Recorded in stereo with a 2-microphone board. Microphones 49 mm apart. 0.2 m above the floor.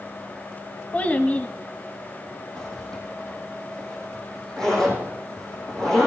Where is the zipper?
10° left (ahead or behind), 4.5 m.